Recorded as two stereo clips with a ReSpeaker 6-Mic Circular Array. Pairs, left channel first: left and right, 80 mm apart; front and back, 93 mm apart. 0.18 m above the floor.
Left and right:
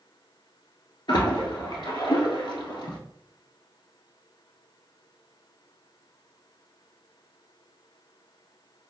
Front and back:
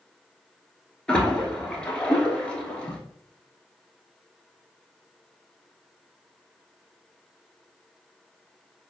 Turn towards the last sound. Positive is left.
turn(degrees=80)